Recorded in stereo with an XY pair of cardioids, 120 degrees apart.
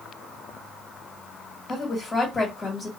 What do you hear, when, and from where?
1.7 s a woman speaking: 25° left, 1.8 m